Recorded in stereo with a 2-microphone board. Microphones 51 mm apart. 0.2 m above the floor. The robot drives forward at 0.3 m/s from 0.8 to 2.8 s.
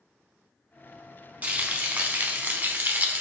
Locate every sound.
1.4 s frying: 30° right (ahead or behind), 1.0 m; by 3.2 s 40° right (ahead or behind), 0.8 m